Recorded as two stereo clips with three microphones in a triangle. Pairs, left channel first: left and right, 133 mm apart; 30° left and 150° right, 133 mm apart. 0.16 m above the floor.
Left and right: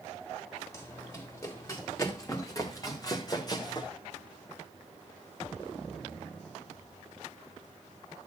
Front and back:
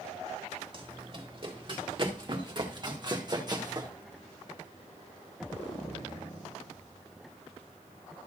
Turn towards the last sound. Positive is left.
turn(degrees=150)